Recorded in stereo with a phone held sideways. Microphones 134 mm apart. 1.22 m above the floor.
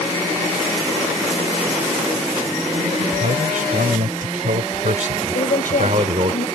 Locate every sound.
3.0 s a man speaking: 85° right; by 6.3 s 50° right (ahead or behind)
5.3 s a woman speaking: 85° left